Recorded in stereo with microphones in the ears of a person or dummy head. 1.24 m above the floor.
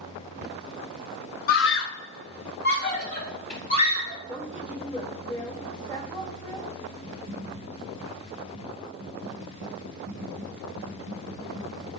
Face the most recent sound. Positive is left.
turn(degrees=-50)  # may be behind; listen again after turning